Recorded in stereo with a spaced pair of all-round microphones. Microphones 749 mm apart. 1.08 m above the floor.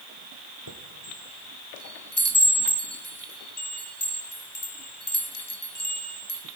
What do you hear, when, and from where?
0.7 s a chime: 30° left (ahead or behind), 1.7 m